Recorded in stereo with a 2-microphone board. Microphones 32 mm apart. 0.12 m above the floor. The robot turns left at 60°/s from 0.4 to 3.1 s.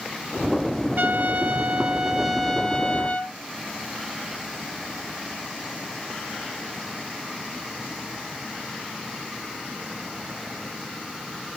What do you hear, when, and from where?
1.0 s a trumpet: 90° right, 1.3 m; by 3.4 s 140° left, 1.3 m